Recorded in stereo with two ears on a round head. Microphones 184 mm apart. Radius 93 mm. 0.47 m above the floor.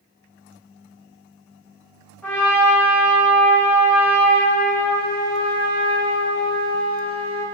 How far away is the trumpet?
About 0.8 m.